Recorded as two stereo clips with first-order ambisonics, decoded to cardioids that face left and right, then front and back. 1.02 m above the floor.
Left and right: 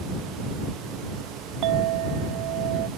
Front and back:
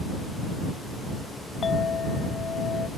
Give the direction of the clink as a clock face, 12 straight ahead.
2 o'clock.